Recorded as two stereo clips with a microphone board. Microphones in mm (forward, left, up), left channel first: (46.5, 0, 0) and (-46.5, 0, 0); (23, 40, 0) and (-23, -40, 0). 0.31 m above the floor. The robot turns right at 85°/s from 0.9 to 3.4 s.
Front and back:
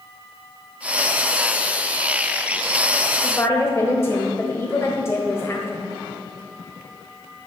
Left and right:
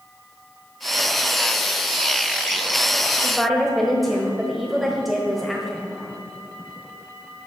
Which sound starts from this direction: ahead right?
A woman speaking, at 3.2 s.